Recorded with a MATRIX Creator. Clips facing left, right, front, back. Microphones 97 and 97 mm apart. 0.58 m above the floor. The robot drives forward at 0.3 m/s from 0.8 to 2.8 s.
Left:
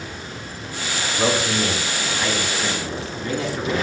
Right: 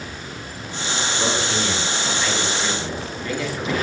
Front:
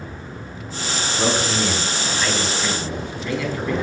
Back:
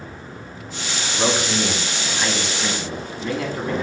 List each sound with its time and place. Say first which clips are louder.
1.1 s a man speaking: left 4 dB, even; 105° left, 0.7 m; by 3.7 s 150° left, 0.9 m